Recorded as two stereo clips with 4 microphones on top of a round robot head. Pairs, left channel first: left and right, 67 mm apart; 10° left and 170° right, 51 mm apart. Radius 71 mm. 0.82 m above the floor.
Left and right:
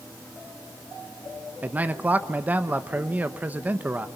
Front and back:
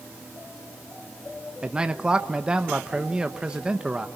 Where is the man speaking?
120° right, 0.9 m.